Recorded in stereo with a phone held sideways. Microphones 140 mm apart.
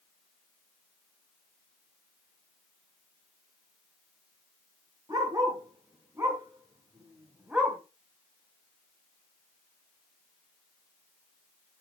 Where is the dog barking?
25° right (ahead or behind), 4 m; by 7.8 s 5° right (ahead or behind), 1.9 m.